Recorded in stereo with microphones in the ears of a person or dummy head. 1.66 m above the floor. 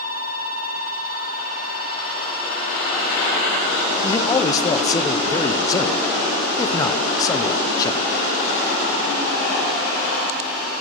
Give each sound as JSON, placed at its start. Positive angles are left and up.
{"t": 4.0, "sound": "a man speaking", "side_deg": 25, "distance_m": 0.9}